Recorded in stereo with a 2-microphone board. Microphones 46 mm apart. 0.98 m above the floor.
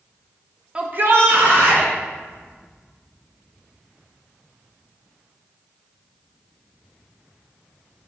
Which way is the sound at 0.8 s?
15° right (ahead or behind).